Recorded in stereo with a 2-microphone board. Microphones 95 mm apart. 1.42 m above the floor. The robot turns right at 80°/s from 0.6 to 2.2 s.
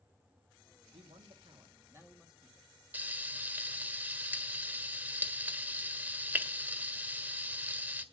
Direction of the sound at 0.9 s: 110° right.